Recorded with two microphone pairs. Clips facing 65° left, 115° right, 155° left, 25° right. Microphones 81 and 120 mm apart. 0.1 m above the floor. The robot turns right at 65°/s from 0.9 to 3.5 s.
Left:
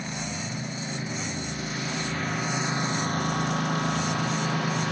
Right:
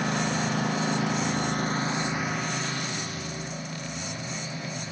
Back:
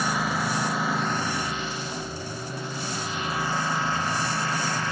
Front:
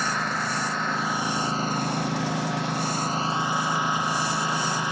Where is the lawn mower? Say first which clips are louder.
Right 7 dB, back 1 dB; 120° right; by 4.9 s 50° left.